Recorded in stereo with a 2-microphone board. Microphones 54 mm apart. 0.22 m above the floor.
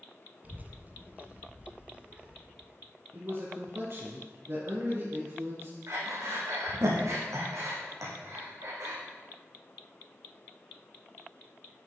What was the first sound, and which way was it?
A child speaking, 35° right (ahead or behind).